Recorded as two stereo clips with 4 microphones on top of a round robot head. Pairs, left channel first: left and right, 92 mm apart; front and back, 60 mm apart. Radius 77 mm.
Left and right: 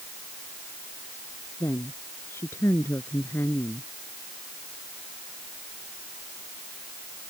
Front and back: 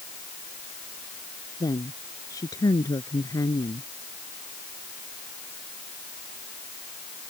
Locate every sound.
1.6 s a woman speaking: 20° left